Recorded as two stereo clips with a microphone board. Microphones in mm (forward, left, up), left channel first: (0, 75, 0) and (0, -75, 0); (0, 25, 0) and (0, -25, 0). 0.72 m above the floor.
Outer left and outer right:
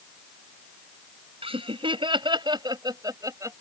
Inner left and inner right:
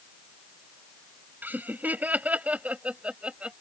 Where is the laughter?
40° right (ahead or behind); by 3.6 s 20° right (ahead or behind).